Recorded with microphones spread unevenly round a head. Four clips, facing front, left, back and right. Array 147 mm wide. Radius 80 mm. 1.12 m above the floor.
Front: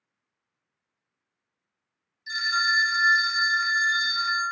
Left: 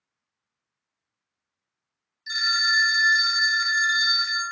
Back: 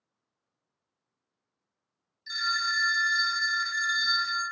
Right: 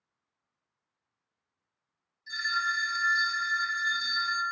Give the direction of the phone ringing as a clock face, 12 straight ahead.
9 o'clock.